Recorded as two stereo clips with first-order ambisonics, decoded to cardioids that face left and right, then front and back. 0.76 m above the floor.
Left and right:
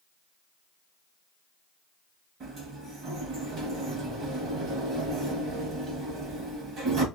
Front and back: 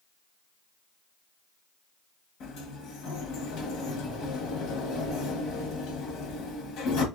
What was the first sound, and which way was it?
A sliding door, 35° right.